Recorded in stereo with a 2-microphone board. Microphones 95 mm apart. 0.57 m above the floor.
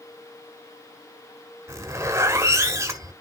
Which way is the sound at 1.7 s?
30° right (ahead or behind).